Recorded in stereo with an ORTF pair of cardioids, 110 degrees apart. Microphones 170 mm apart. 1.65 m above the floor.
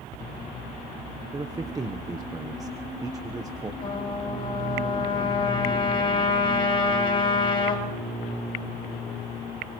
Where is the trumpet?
30° left, 10 m.